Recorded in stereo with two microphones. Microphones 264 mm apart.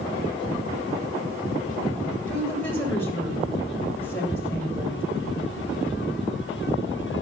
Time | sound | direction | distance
2.3 | a woman speaking | 10° left (ahead or behind) | 8 m